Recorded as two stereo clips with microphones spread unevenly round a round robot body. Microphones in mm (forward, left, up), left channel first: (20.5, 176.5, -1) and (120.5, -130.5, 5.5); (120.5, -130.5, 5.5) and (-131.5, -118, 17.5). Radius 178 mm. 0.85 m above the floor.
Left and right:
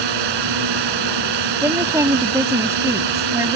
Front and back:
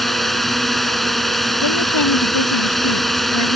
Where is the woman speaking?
10° left.